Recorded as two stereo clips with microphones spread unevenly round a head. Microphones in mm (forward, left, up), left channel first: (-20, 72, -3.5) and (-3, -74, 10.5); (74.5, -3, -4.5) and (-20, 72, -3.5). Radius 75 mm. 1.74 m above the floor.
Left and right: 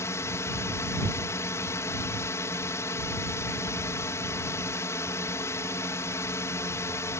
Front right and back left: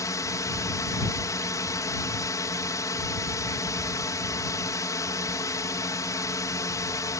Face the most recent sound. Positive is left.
turn(degrees=25)